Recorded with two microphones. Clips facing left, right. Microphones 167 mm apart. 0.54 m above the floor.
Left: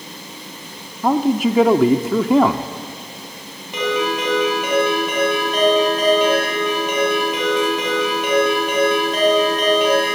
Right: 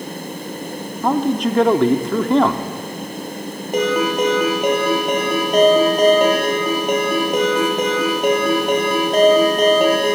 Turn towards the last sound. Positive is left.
turn(degrees=-50)  # may be behind; listen again after turning